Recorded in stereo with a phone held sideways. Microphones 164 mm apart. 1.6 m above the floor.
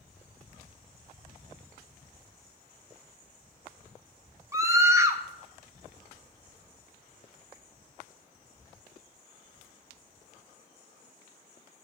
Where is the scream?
20° right (ahead or behind), 1.2 m.